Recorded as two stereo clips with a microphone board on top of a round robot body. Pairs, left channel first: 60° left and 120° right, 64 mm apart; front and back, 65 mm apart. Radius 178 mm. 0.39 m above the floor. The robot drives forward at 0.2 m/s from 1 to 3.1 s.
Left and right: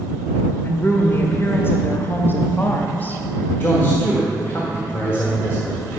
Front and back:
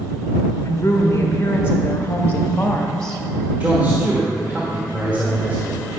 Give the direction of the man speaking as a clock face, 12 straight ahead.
8 o'clock.